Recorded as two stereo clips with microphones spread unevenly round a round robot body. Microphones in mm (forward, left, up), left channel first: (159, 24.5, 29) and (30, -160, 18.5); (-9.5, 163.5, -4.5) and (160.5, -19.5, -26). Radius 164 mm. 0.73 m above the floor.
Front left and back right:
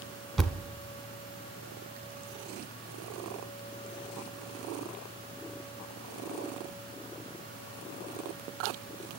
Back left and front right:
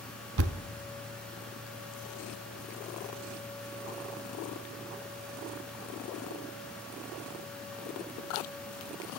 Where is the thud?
30° right, 0.9 m.